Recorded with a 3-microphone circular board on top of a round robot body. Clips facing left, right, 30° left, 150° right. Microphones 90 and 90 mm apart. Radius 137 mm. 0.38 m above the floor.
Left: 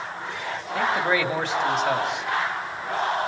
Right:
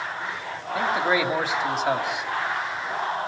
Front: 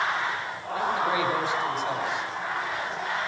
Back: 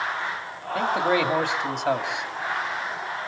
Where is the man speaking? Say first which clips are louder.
Even, back 3 dB; 175° right, 3 m.